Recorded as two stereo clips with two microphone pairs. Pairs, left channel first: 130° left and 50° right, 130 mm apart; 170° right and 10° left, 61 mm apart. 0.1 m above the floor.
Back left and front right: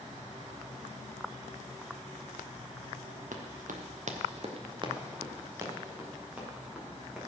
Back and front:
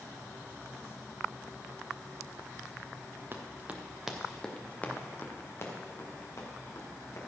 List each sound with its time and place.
3.3 s running footsteps: 40° right, 1.8 m; by 7.2 s 135° right, 4 m